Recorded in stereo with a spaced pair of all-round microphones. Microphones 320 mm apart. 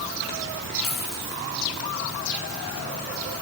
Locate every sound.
0.8 s a dropped coin: 45° left (ahead or behind), 8 m